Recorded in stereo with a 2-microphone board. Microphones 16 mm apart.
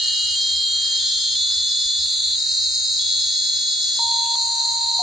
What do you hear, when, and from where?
0.0 s an insect: 30° right (ahead or behind), 1.4 m